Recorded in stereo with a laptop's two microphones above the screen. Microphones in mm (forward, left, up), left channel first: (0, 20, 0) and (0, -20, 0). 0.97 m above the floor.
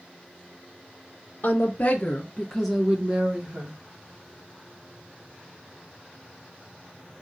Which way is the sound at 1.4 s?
50° left (ahead or behind).